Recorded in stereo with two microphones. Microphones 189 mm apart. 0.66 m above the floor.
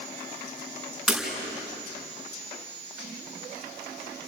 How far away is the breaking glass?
About 4.5 m.